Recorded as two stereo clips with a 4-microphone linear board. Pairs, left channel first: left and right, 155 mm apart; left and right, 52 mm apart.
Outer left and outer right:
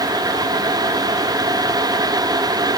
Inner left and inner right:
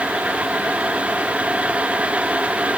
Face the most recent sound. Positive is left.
No sound to turn to.